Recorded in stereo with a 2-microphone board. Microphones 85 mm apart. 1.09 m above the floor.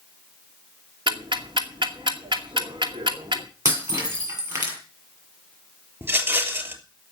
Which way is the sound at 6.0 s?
30° right (ahead or behind).